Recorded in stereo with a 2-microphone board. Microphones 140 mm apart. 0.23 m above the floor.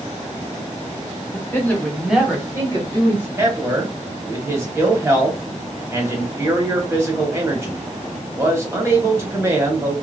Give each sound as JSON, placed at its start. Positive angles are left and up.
{"t": 1.3, "sound": "a woman speaking", "side_deg": 20, "distance_m": 1.2}
{"t": 3.4, "sound": "a man speaking", "side_deg": -20, "distance_m": 1.1}